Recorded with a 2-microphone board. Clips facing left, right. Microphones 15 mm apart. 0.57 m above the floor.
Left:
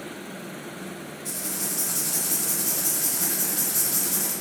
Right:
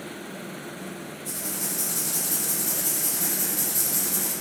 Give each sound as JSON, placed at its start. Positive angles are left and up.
{"t": 1.2, "sound": "writing", "side_deg": 60, "distance_m": 1.9}